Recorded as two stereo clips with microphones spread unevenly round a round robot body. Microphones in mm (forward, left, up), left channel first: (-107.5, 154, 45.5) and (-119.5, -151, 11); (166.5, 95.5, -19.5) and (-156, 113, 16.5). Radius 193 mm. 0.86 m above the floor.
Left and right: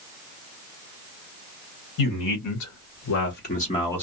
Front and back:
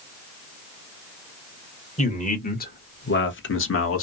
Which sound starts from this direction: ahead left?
A man speaking, at 2.0 s.